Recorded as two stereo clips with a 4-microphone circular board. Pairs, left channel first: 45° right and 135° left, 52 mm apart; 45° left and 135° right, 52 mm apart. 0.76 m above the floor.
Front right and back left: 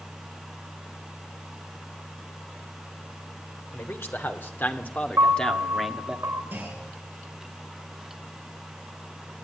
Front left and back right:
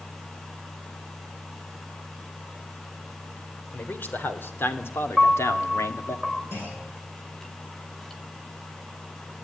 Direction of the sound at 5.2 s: 130° left.